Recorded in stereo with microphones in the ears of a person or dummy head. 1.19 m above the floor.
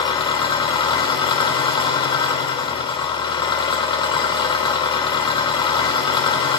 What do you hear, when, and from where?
0.0 s an engine running: 30° left (ahead or behind), 2.5 m